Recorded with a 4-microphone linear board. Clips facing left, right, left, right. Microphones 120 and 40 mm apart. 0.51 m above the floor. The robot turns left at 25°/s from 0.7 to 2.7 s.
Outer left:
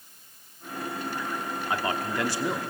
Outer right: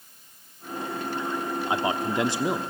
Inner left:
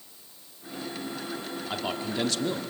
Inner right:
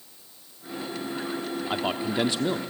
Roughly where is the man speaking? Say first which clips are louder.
Outer right 2 dB, inner right 3 dB; centre.